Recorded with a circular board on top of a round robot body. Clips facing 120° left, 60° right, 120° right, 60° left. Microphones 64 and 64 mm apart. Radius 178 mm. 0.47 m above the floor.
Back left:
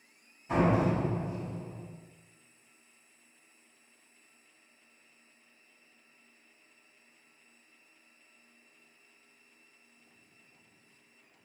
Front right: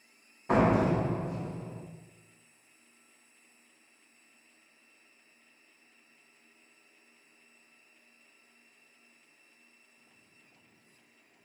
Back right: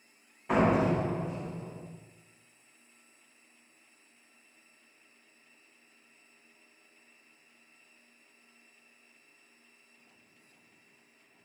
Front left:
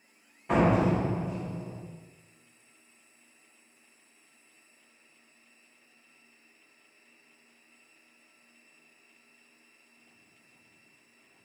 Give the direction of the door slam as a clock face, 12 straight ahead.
1 o'clock.